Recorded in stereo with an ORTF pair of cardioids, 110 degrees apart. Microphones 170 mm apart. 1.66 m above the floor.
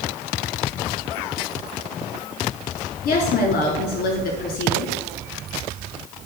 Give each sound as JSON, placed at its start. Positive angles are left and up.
{"t": 3.0, "sound": "a woman speaking", "azimuth_deg": 60, "distance_m": 4.0}